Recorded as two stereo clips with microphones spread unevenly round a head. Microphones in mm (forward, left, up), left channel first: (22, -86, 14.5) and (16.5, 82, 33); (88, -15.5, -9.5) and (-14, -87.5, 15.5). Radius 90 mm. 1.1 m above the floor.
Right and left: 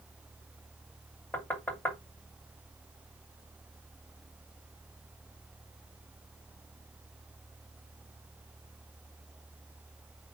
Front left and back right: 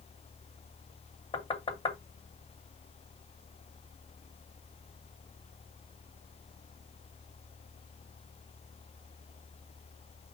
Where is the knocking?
10° right, 2 m.